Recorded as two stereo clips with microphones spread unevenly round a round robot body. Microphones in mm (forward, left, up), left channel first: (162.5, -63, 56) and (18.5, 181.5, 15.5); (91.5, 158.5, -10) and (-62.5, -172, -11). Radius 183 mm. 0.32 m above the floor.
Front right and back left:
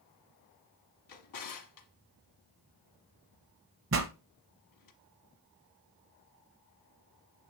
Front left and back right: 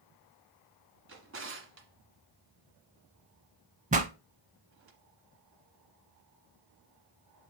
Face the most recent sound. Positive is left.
turn(degrees=175)